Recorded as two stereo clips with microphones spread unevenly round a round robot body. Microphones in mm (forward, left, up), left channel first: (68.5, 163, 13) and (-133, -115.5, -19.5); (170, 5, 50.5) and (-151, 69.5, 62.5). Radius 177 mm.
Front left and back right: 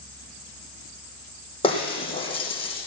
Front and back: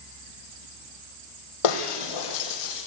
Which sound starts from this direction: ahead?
Breaking glass, at 1.6 s.